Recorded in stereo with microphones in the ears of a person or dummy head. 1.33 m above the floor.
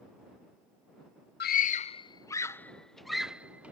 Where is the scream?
45° left (ahead or behind); by 3.7 s 15° right (ahead or behind).